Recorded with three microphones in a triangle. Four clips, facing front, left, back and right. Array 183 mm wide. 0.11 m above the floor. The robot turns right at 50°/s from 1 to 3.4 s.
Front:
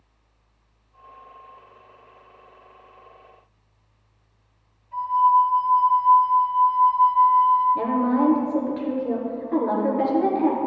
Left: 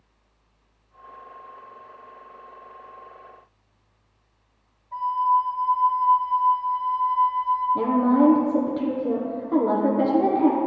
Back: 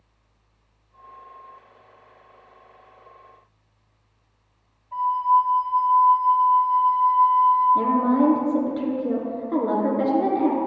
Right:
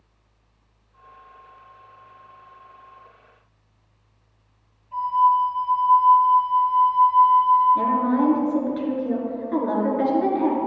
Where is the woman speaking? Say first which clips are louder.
Left 1 dB, back 2 dB; 135° left, 1.3 m.